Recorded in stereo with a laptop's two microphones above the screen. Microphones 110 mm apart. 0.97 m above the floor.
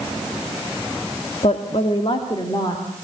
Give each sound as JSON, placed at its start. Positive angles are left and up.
{"t": 1.4, "sound": "a woman speaking", "side_deg": 75, "distance_m": 1.7}